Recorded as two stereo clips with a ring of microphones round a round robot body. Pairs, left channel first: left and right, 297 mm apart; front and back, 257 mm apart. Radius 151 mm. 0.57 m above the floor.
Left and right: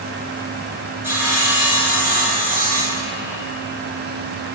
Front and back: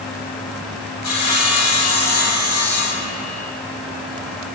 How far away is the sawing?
About 4 m.